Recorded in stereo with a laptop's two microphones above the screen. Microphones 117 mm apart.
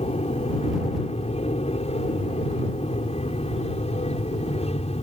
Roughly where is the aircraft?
Left.